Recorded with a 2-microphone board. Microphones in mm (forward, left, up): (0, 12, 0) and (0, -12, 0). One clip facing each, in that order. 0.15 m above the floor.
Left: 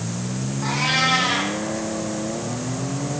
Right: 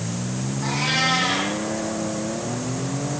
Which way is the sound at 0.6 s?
5° left (ahead or behind).